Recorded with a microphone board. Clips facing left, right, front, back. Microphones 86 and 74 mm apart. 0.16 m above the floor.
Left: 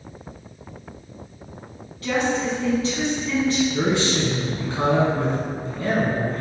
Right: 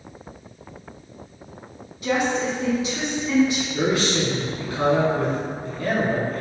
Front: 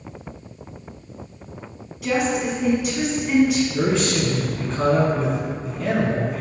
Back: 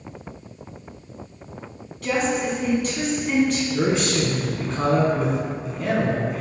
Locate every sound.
2.0 s a woman speaking: 70° right, 1.0 m
3.7 s a man speaking: 95° left, 1.3 m